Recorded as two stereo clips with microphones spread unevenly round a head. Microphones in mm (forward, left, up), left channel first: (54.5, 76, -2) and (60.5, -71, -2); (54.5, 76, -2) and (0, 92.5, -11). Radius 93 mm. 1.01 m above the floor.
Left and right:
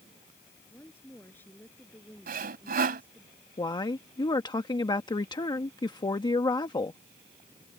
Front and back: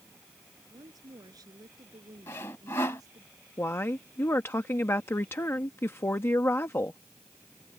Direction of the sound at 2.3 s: 75° right.